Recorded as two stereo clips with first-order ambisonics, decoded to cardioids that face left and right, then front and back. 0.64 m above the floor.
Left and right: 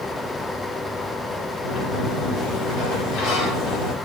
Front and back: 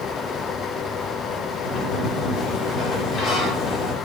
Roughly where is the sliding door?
Ahead left.